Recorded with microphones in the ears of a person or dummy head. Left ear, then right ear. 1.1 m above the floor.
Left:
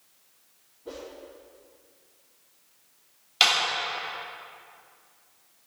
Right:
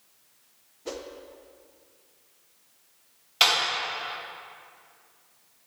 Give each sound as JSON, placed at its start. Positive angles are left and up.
{"t": 0.8, "sound": "a whoosh", "side_deg": -65, "distance_m": 0.8}
{"t": 3.4, "sound": "a clap", "side_deg": 20, "distance_m": 2.5}